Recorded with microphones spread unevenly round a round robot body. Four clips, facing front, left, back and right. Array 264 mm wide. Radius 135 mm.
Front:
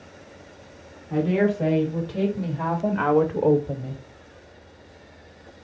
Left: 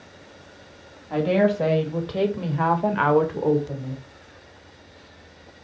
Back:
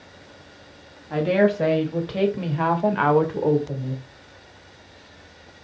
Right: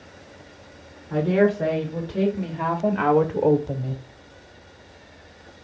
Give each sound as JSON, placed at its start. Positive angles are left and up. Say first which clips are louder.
{"t": 1.1, "sound": "a woman speaking", "louder": "even, back 2 dB", "azimuth_deg": 135, "distance_m": 2.0}